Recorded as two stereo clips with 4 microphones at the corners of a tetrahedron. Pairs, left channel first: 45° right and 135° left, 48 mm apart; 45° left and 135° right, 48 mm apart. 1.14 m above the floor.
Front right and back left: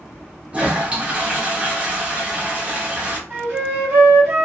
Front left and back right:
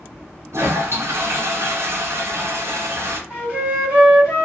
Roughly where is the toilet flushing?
Behind.